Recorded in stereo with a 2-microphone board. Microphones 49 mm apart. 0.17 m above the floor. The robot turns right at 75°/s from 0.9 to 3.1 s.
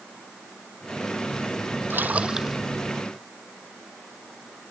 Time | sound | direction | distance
1.9 | a splash | 50° right | ?